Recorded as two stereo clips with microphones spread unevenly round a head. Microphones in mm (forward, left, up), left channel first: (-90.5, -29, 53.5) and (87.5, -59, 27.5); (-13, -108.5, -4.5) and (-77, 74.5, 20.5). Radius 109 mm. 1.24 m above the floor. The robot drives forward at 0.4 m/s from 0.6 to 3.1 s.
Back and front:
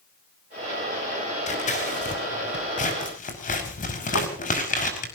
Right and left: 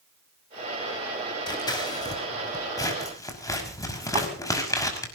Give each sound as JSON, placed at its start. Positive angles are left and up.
{"t": 1.5, "sound": "scissors", "azimuth_deg": -140, "distance_m": 5.0}
{"t": 4.2, "sound": "a thud", "azimuth_deg": 165, "distance_m": 3.0}